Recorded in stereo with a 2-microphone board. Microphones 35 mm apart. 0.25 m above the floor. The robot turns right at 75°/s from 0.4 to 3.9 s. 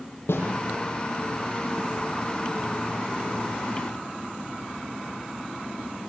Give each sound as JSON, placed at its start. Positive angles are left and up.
{"t": 0.3, "sound": "a snare drum", "side_deg": 80, "distance_m": 8.5}